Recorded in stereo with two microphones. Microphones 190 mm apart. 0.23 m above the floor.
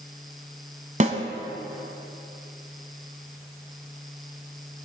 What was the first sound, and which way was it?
A snare drum, 40° right (ahead or behind).